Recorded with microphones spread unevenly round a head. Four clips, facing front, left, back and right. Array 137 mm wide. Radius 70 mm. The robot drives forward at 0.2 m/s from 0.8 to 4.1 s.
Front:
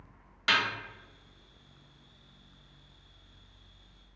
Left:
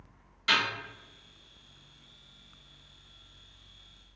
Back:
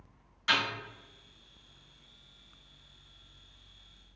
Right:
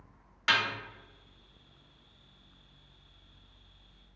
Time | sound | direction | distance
0.5 | a snare drum | 35° right | 1.3 m